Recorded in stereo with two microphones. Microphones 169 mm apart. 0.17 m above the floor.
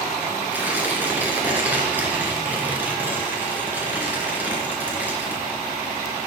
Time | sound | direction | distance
0.5 | tearing paper | 10° right (ahead or behind) | 3 m